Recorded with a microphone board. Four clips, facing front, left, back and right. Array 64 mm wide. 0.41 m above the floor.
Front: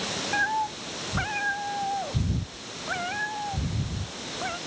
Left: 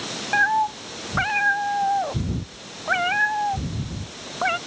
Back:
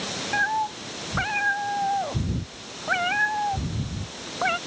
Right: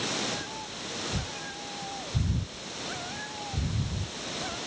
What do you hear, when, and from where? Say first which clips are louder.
0.3 s a cat meowing: left 18 dB, back 2 dB; 95° left; by 4.6 s 120° left